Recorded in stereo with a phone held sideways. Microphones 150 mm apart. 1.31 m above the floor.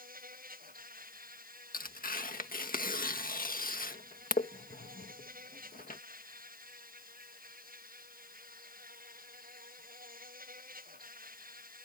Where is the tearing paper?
60° left (ahead or behind).